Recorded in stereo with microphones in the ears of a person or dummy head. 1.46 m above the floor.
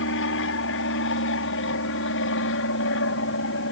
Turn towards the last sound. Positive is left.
turn(degrees=65)  # may be behind; listen again after turning